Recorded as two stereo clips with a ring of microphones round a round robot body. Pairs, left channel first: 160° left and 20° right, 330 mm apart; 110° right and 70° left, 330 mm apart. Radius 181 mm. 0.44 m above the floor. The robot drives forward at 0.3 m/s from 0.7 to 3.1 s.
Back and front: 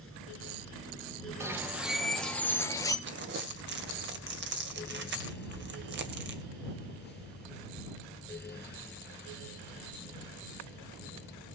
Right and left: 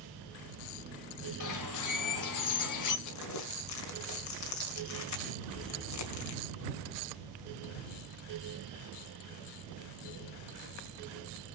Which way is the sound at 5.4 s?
50° right.